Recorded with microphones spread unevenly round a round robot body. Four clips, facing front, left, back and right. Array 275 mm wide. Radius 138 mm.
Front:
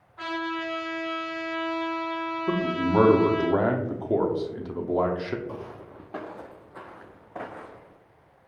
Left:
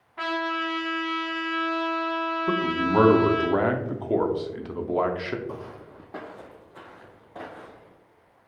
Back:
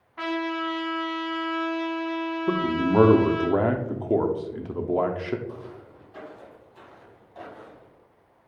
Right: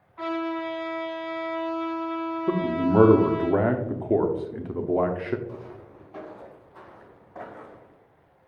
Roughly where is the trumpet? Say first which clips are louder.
Even, back 3 dB; behind left.